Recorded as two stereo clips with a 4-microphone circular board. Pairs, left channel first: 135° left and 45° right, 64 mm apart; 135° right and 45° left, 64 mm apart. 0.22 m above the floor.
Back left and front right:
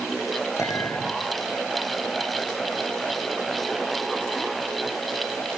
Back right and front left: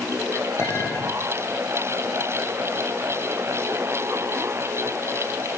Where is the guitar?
I don't hear a guitar.